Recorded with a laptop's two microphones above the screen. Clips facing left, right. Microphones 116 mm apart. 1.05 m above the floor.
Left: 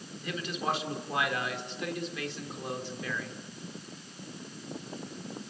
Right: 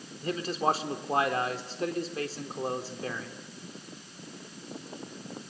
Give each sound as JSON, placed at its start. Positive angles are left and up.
{"t": 0.2, "sound": "a man speaking", "side_deg": -40, "distance_m": 3.5}